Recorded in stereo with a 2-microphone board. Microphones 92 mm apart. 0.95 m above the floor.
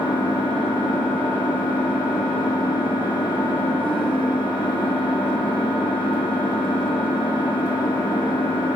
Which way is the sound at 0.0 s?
65° left (ahead or behind).